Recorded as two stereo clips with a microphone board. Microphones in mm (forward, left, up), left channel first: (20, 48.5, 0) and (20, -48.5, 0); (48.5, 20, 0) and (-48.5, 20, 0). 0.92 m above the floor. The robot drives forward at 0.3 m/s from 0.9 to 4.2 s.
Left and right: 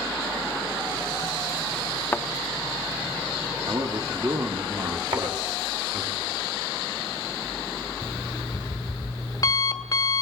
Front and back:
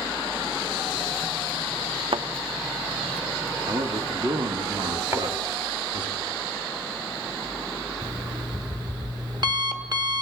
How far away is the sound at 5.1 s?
About 2.5 m.